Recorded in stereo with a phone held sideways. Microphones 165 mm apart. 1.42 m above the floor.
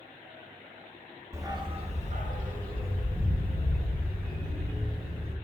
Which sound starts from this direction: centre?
A dog barking, at 1.3 s.